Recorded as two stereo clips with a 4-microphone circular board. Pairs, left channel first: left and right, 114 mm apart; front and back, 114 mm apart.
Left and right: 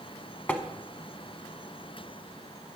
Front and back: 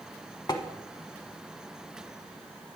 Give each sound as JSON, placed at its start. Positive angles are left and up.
{"t": 0.5, "sound": "tapping", "azimuth_deg": 20, "distance_m": 0.7}